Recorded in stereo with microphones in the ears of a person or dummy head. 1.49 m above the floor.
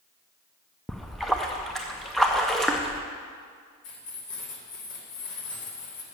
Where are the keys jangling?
60° left (ahead or behind), 2.0 m.